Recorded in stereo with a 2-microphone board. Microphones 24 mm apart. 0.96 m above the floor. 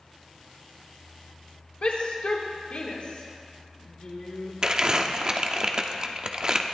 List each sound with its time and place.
1.8 s a shout: 60° left (ahead or behind), 2.5 m
4.6 s crumpling: 35° right (ahead or behind), 0.8 m